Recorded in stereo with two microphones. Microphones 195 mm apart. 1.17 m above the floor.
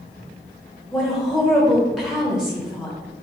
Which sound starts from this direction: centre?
A woman speaking, at 0.9 s.